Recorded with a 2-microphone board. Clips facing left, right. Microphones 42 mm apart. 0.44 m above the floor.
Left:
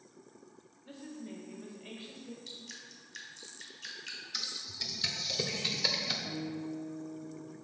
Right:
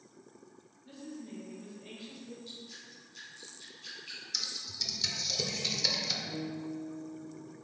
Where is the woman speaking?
30° left (ahead or behind), 1.5 m.